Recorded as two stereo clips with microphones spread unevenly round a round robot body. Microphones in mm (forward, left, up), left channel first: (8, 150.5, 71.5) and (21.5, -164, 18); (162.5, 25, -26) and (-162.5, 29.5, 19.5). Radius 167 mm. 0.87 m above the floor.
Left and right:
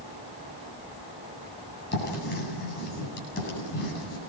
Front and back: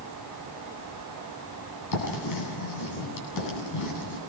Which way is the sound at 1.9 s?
30° left.